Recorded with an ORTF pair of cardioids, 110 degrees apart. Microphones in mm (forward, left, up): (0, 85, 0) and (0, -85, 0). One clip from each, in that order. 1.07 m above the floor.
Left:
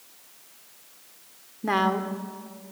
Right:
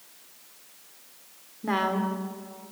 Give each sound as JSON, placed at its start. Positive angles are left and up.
{"t": 1.6, "sound": "a woman speaking", "azimuth_deg": 20, "distance_m": 2.5}